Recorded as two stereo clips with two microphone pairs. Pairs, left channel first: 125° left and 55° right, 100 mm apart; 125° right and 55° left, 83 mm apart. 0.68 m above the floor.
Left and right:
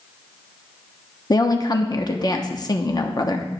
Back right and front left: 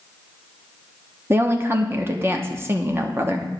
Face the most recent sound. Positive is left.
turn(degrees=105)